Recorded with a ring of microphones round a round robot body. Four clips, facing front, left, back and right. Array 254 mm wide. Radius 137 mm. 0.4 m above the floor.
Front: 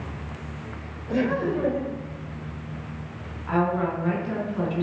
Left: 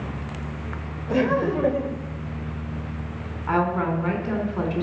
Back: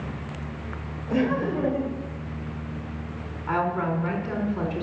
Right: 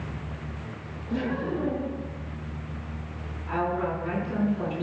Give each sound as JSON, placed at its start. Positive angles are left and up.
{"t": 1.1, "sound": "laughter", "azimuth_deg": 95, "distance_m": 2.0}
{"t": 3.5, "sound": "a woman speaking", "azimuth_deg": 110, "distance_m": 4.5}